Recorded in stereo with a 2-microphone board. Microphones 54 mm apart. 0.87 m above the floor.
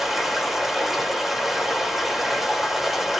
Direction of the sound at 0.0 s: 5° right (ahead or behind).